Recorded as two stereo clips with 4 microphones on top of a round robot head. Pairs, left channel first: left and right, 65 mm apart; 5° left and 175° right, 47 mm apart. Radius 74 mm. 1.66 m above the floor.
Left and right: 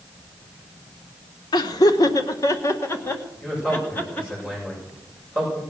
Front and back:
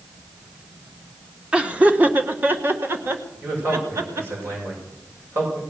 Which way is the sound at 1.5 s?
120° left.